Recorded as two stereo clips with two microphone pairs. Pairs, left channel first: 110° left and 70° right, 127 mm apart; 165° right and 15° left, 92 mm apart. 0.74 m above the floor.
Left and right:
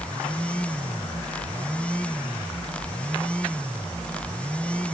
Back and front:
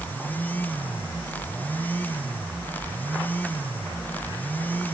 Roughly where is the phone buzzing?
I don't hear a phone buzzing.